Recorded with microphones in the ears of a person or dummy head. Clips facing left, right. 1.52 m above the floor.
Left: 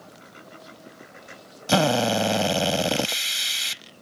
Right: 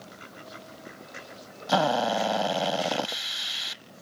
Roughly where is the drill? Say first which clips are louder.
Left 3 dB; left.